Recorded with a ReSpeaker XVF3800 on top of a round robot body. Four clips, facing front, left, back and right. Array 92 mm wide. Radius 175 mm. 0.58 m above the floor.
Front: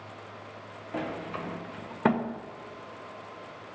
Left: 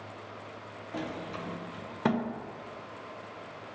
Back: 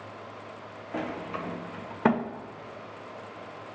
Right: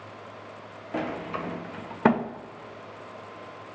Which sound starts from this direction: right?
A sliding door, at 0.9 s.